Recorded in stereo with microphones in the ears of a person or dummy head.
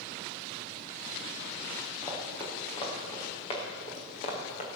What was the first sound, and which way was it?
Running footsteps, 20° left (ahead or behind).